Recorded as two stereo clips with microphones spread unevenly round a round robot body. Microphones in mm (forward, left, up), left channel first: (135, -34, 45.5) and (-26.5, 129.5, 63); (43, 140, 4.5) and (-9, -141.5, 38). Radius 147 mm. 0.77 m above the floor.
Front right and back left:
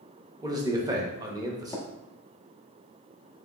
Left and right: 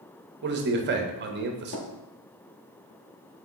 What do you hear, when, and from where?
0.4 s a man speaking: 150° right, 0.7 m
1.7 s tapping: 35° left, 0.9 m